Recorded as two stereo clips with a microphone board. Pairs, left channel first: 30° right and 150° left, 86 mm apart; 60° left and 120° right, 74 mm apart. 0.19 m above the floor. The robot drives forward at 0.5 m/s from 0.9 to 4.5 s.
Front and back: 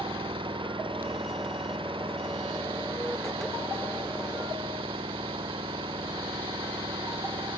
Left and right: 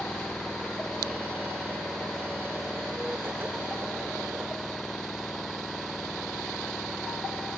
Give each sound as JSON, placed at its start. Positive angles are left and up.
{"t": 0.0, "sound": "an engine running", "azimuth_deg": 145}